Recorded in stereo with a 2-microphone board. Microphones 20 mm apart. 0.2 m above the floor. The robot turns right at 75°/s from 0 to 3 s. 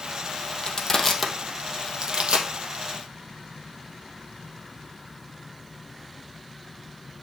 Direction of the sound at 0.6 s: 40° left (ahead or behind).